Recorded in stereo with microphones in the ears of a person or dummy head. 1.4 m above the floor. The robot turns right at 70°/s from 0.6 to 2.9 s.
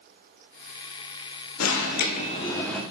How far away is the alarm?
About 0.9 m.